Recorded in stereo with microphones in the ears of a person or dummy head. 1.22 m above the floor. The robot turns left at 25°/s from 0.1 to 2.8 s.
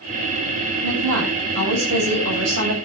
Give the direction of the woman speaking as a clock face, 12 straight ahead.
2 o'clock.